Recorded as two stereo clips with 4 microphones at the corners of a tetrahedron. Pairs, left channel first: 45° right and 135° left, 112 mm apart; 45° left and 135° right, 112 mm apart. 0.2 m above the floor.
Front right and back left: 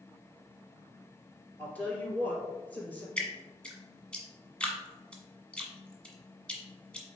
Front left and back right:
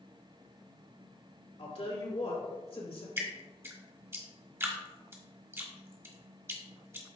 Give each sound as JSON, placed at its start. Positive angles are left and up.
{"t": 1.6, "sound": "a woman speaking", "azimuth_deg": 30, "distance_m": 2.5}
{"t": 3.2, "sound": "dripping", "azimuth_deg": -110, "distance_m": 1.3}